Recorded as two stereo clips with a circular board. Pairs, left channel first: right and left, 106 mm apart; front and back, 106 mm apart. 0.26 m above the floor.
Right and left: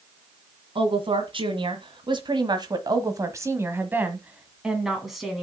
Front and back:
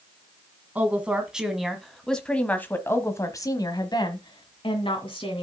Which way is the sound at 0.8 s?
105° left.